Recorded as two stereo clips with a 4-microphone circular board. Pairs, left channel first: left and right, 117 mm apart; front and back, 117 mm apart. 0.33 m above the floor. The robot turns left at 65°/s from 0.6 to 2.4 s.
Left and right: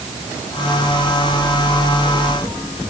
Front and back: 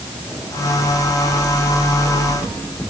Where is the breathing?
I don't hear breathing.